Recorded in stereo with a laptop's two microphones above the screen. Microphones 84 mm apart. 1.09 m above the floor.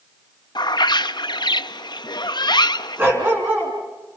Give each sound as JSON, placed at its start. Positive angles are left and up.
{"t": 0.6, "sound": "a bird", "side_deg": 60, "distance_m": 0.5}
{"t": 3.0, "sound": "a dog barking", "side_deg": -25, "distance_m": 3.5}